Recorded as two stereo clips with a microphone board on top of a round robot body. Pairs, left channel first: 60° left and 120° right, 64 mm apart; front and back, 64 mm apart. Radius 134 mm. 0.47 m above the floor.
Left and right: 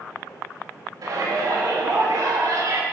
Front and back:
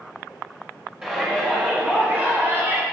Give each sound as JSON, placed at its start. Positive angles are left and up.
{"t": 1.0, "sound": "a shout", "azimuth_deg": -105, "distance_m": 3.5}